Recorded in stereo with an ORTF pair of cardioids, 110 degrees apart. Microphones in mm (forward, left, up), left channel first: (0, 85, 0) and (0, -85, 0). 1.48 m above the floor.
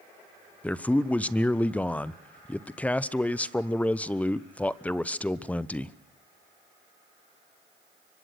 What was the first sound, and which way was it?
A man speaking, 10° left.